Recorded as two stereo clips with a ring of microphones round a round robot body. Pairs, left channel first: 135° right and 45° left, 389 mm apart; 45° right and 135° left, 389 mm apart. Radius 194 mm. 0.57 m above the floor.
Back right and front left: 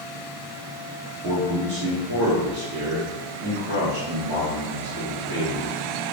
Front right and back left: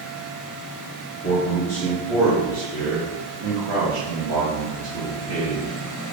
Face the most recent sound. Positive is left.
turn(degrees=120)